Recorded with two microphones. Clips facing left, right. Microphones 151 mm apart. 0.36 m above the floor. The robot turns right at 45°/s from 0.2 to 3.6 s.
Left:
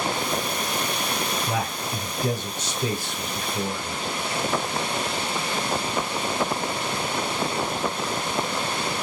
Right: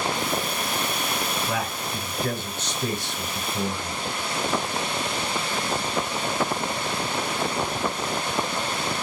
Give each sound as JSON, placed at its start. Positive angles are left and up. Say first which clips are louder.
{"t": 1.5, "sound": "a man speaking", "louder": "left 1 dB", "azimuth_deg": 105, "distance_m": 1.5}